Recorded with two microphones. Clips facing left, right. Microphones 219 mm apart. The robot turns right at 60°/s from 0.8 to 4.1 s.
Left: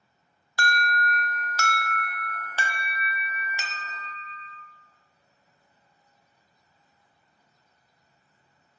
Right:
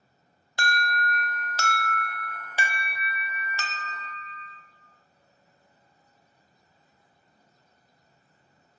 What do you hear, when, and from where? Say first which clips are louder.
0.6 s an alarm: left 1 dB; 135° right, 0.8 m; by 4.6 s 65° left, 0.8 m